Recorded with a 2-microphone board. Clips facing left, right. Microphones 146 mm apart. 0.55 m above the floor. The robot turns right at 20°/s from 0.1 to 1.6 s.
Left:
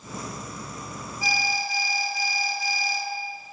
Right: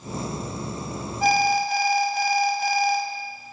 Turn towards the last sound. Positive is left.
turn(degrees=-60)  # may be behind; listen again after turning